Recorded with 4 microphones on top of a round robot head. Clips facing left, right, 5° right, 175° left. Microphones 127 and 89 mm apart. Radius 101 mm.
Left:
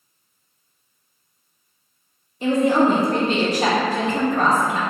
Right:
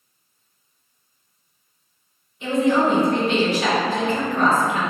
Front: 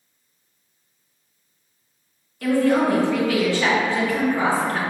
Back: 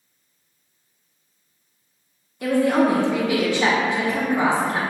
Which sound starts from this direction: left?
A woman speaking, at 2.4 s.